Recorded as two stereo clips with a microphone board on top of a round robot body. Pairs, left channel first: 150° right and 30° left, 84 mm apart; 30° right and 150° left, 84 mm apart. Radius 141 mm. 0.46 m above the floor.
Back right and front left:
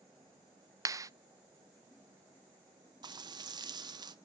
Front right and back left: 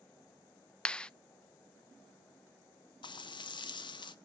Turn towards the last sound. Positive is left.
turn(degrees=-5)